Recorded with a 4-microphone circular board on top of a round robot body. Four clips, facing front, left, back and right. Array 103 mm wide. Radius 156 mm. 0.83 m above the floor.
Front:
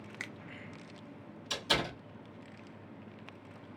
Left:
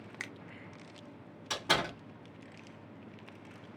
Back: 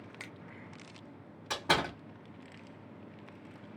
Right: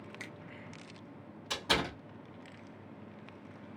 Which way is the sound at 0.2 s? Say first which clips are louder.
Left 5 dB, front 5 dB; 55° left.